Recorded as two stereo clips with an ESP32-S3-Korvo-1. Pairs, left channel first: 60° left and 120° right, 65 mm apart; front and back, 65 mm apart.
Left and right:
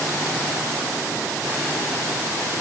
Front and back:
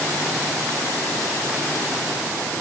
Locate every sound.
Only background noise.